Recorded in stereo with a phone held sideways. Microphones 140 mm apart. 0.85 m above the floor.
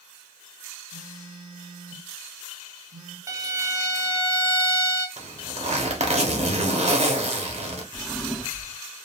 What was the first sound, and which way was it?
A phone buzzing, 75° right (ahead or behind).